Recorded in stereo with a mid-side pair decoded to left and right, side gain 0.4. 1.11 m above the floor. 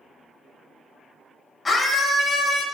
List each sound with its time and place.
1.6 s a scream: 30° left, 5.5 m